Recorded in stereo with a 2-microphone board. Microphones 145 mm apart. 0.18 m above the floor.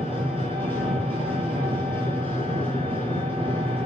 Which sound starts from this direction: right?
An engine running, at 0.0 s.